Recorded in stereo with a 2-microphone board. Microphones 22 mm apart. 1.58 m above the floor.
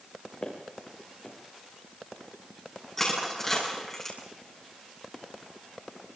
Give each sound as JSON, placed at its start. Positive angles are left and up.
{"t": 0.4, "sound": "footsteps", "side_deg": 35, "distance_m": 5.0}
{"t": 3.0, "sound": "crushing", "side_deg": 15, "distance_m": 6.5}